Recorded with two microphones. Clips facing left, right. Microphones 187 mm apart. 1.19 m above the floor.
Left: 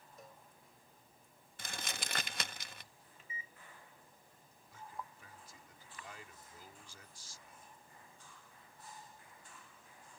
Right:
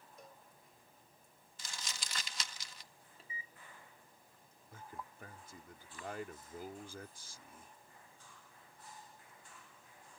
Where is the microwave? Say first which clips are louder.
Even; 35° right (ahead or behind).